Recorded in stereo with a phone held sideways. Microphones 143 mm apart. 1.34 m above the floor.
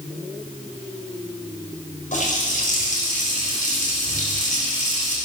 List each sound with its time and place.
2.1 s a running tap: 65° left (ahead or behind), 4 m